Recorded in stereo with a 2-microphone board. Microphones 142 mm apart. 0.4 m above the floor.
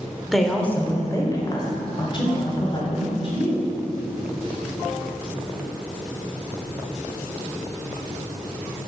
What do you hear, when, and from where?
0.3 s a woman speaking: centre (ahead or behind), 1.0 m; by 3.6 s 45° left (ahead or behind), 3 m